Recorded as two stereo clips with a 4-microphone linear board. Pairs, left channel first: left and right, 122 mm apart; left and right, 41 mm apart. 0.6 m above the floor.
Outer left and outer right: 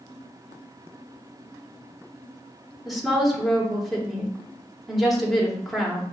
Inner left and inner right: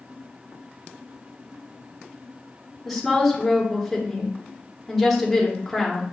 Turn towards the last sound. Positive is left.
turn(degrees=0)  # may be behind; listen again after turning